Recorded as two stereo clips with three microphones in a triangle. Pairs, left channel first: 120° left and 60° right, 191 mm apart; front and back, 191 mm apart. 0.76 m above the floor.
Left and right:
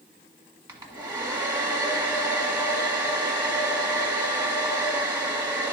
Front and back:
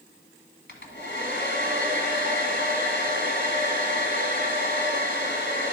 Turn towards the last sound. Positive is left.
turn(degrees=10)